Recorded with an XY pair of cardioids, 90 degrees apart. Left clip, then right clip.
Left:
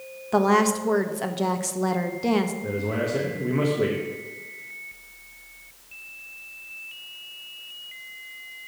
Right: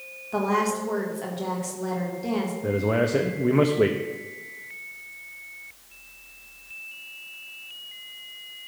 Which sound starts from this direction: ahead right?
A man speaking, at 2.6 s.